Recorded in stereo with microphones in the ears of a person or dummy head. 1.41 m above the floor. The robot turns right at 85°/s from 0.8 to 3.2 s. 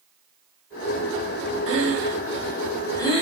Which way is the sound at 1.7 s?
75° right (ahead or behind).